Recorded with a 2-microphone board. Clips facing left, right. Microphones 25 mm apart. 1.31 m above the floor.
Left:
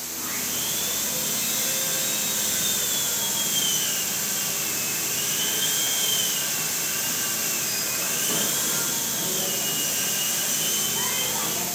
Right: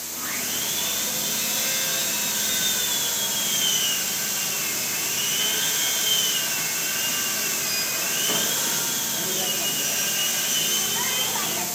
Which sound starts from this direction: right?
Sawing, at 0.1 s.